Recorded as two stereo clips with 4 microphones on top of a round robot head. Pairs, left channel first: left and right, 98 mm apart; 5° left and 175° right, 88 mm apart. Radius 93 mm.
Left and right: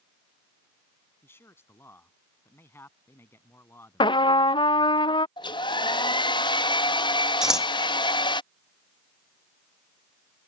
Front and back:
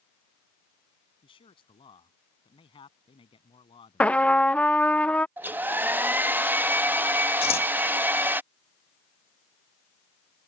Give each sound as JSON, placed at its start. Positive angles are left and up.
{"t": 1.2, "sound": "a man speaking", "azimuth_deg": 25}
{"t": 4.0, "sound": "a trumpet", "azimuth_deg": 75}
{"t": 5.4, "sound": "a hair dryer", "azimuth_deg": 120}
{"t": 7.4, "sound": "scissors", "azimuth_deg": -5}